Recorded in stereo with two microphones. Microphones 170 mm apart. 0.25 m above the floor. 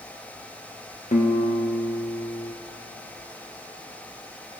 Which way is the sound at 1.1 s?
50° left (ahead or behind).